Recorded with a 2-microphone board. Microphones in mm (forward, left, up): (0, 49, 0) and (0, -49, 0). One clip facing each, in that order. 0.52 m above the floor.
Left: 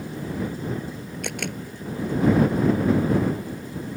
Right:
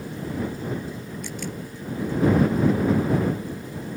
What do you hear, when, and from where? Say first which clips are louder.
1.2 s a camera shutter: left 4 dB; 70° left (ahead or behind)